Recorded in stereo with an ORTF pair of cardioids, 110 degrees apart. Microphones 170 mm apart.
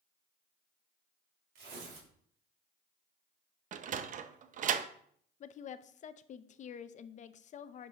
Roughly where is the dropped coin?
No dropped coin in this recording.